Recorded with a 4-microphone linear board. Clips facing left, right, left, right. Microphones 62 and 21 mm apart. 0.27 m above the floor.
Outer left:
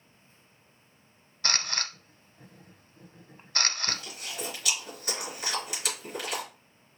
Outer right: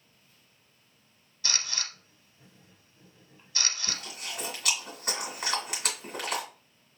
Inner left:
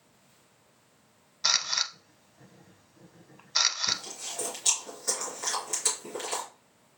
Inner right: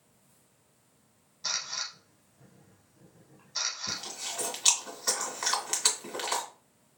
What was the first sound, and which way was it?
A camera shutter, 50° left (ahead or behind).